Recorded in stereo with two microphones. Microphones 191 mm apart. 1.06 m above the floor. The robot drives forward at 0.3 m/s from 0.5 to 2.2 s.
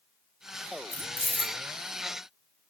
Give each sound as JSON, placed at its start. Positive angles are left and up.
{"t": 0.9, "sound": "keys jangling", "side_deg": 10, "distance_m": 0.8}